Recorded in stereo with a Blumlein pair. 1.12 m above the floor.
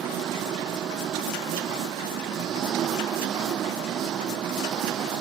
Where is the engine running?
30° right.